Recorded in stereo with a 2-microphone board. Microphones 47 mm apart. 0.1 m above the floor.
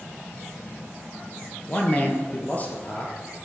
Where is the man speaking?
30° left (ahead or behind), 1.9 m.